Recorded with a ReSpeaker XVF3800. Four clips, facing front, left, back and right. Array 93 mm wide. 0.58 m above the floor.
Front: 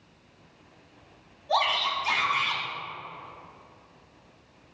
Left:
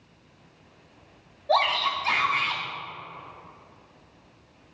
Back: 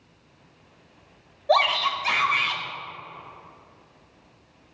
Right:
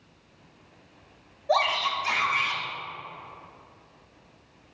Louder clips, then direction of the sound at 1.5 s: Left 1 dB, back 5 dB; 170° right.